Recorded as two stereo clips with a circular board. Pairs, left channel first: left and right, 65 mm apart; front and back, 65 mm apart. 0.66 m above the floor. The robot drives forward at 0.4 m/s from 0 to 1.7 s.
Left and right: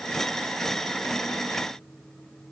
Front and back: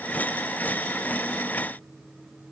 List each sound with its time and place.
Only background noise.